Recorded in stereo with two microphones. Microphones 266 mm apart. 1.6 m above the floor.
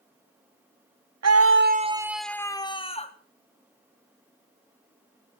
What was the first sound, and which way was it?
A scream, 70° right (ahead or behind).